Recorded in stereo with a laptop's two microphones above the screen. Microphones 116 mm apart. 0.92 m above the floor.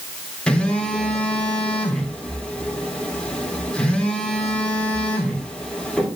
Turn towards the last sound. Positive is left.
turn(degrees=10)  # may be behind; listen again after turning